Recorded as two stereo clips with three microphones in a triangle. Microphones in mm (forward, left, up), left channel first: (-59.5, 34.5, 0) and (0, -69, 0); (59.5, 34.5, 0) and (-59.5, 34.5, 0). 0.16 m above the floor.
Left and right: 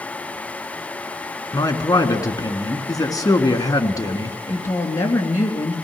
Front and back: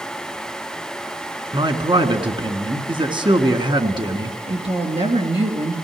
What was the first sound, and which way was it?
A man speaking, 160° left.